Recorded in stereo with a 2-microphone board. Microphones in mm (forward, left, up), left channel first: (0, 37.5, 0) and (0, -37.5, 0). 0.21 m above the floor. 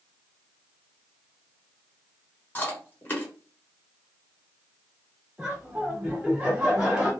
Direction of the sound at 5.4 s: 15° right (ahead or behind).